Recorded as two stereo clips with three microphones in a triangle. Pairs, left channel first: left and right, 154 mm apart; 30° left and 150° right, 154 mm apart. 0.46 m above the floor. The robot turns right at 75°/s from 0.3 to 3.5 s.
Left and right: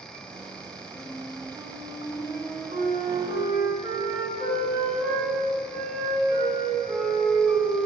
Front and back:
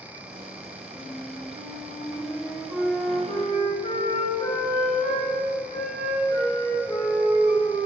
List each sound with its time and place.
0.9 s a flute: 145° left, 4 m; by 7.9 s 20° right, 4 m